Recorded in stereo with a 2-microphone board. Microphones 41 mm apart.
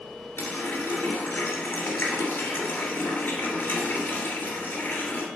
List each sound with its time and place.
0.4 s a running tap: 55° left (ahead or behind), 2.0 m